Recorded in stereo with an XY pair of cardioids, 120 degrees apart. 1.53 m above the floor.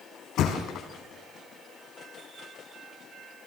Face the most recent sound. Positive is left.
turn(degrees=70)